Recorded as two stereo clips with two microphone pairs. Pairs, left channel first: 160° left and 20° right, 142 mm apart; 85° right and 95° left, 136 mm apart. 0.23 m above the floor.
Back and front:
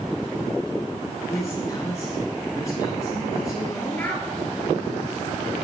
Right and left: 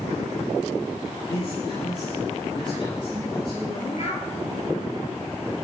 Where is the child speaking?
120° right, 4 m.